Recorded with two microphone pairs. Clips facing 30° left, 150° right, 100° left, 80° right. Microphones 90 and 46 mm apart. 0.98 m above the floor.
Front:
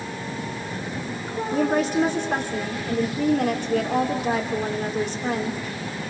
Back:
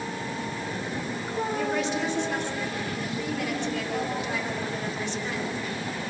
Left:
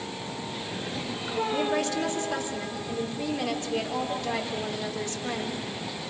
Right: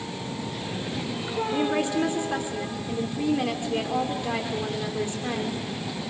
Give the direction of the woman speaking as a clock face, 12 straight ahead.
12 o'clock.